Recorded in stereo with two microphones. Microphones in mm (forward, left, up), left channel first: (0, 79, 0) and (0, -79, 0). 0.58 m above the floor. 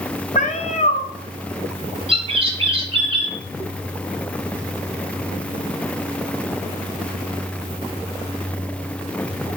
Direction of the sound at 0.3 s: 50° left (ahead or behind).